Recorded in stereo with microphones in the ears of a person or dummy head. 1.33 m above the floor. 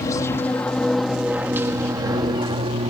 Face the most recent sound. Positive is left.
turn(degrees=-35)  # may be behind; listen again after turning